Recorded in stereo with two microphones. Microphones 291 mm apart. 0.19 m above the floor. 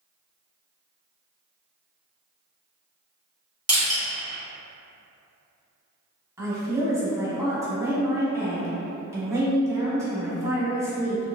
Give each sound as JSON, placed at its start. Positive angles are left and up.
{"t": 3.7, "sound": "crushing", "side_deg": -25, "distance_m": 1.6}
{"t": 6.4, "sound": "a woman speaking", "side_deg": -10, "distance_m": 1.0}